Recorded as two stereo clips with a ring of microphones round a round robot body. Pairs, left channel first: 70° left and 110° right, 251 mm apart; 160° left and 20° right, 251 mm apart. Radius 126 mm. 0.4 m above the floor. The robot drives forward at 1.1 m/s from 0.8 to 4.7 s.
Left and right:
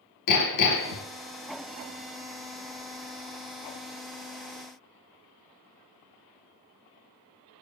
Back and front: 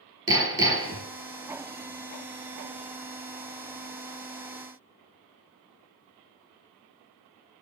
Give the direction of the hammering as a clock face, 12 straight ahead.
10 o'clock.